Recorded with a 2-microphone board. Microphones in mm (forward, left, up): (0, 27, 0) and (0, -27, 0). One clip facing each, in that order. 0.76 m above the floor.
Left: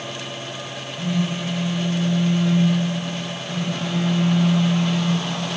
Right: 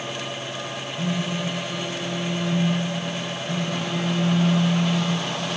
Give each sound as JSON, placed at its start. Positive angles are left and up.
{"t": 1.0, "sound": "a phone buzzing", "side_deg": -30, "distance_m": 3.5}